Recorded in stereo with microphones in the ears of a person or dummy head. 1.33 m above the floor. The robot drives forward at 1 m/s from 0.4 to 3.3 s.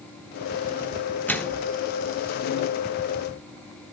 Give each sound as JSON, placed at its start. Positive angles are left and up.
{"t": 1.3, "sound": "a microwave", "side_deg": 5, "distance_m": 1.1}